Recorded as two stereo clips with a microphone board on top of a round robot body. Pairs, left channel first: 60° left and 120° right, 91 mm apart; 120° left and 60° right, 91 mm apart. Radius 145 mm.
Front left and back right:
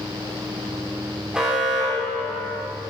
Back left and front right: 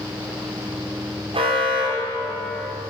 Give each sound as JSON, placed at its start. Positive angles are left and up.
{"t": 1.3, "sound": "an alarm", "azimuth_deg": -40, "distance_m": 4.5}